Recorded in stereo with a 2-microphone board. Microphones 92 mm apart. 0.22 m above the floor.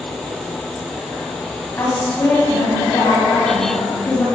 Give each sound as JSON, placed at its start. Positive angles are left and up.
{"t": 1.8, "sound": "a woman speaking", "side_deg": 25, "distance_m": 1.1}